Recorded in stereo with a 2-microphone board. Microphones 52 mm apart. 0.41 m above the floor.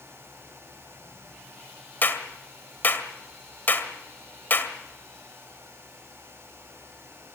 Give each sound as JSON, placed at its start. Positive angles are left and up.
{"t": 2.0, "sound": "a clap", "side_deg": 40, "distance_m": 1.9}